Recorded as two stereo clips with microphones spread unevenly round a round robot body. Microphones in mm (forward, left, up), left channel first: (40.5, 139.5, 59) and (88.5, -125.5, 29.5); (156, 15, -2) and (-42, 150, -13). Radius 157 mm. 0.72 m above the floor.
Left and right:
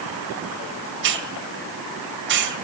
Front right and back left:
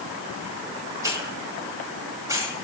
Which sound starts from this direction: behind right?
A hiss, at 1.0 s.